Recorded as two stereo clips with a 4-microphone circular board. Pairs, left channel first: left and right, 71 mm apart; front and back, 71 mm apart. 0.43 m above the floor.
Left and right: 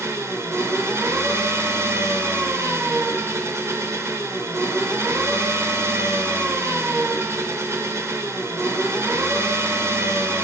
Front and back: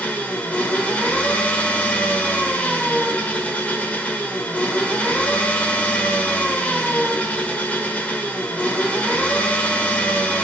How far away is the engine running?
About 1.3 m.